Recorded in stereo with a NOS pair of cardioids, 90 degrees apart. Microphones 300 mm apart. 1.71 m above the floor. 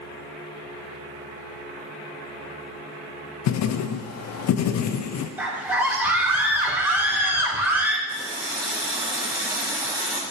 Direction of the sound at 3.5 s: 60° left.